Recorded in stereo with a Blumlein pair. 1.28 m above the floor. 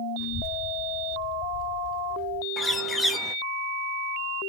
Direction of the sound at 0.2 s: 25° left.